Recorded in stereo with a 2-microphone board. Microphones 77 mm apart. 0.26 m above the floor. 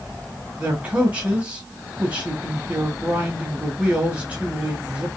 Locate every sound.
0.6 s a man speaking: 15° right (ahead or behind), 1.3 m